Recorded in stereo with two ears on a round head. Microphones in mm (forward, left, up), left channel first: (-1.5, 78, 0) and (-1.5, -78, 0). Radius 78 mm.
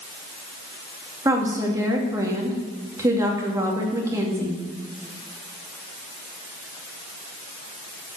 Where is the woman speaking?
20° right (ahead or behind), 2.5 m.